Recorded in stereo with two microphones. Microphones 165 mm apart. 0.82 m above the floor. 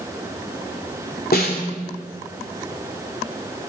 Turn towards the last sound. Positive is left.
turn(degrees=70)  # may be behind; listen again after turning